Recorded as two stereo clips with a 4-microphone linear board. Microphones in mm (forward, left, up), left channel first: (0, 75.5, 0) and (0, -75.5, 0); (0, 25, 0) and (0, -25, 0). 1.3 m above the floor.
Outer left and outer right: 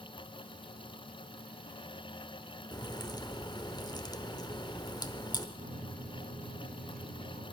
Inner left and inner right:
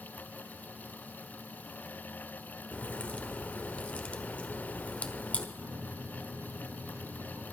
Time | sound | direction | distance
2.7 | a crack | 25° left (ahead or behind) | 1.1 m
5.6 | a microwave | 75° right (ahead or behind) | 5 m